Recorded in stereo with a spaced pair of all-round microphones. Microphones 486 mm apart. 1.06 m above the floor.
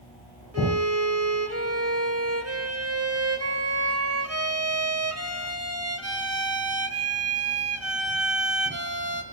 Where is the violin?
30° right (ahead or behind), 1.5 m.